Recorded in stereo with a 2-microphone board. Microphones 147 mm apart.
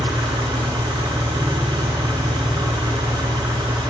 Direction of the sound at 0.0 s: 25° right (ahead or behind).